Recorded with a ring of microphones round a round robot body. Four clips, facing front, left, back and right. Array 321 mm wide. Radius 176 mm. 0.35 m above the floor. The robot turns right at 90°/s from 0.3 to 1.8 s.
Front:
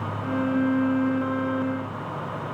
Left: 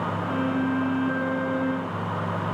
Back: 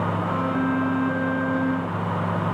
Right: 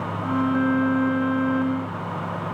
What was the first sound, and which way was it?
Only background noise.